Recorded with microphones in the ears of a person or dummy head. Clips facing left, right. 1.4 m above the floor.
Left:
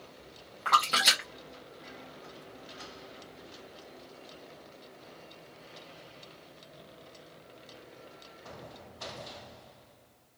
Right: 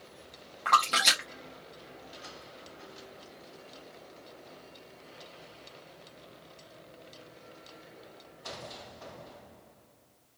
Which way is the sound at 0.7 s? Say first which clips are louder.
Right 1 dB; centre (ahead or behind).